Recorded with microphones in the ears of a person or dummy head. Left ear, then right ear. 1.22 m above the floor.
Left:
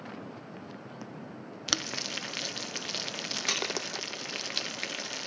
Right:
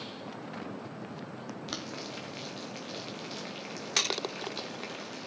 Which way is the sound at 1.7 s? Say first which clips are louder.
Left 10 dB; 45° left (ahead or behind).